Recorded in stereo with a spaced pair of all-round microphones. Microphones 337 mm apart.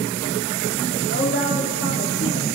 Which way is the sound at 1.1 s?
35° left (ahead or behind).